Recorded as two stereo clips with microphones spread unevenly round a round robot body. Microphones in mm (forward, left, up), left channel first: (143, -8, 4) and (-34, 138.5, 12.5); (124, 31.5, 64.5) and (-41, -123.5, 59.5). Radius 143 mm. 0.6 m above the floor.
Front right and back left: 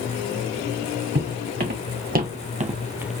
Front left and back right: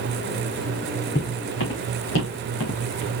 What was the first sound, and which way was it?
Footsteps, 95° left.